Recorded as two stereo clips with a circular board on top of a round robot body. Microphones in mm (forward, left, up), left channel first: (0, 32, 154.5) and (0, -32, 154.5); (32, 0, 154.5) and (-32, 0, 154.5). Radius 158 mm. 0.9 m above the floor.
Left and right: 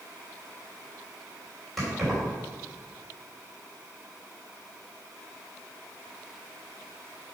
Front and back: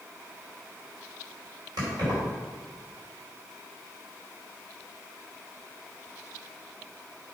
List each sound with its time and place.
1.8 s keys jangling: straight behind, 2.5 m